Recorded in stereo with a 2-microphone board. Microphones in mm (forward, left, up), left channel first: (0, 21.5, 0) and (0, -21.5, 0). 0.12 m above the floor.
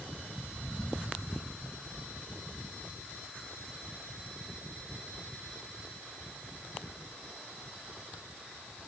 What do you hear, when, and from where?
Only background noise.